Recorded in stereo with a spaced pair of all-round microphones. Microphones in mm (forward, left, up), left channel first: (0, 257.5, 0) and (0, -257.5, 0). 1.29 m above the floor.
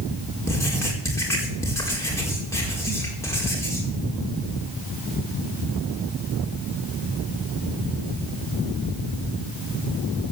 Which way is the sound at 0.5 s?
5° left (ahead or behind).